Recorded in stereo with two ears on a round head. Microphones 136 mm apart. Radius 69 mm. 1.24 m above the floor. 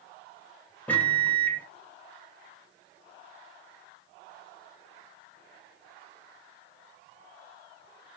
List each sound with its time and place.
0.9 s a microwave: 10° left (ahead or behind), 0.7 m